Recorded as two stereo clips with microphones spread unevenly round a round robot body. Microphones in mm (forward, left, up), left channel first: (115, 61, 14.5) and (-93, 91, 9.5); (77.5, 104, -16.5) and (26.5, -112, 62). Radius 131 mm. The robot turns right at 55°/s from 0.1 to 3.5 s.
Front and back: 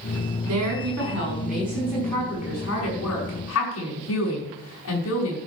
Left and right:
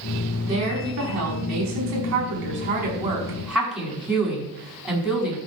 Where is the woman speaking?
175° left, 6 m; by 5.4 s 15° right, 6 m.